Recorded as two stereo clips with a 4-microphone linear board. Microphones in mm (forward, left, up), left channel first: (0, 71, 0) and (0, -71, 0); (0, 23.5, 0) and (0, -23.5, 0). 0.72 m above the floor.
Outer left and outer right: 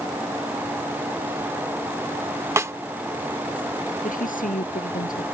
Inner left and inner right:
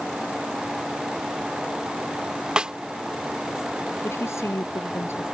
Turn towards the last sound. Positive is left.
turn(degrees=70)  # may be behind; listen again after turning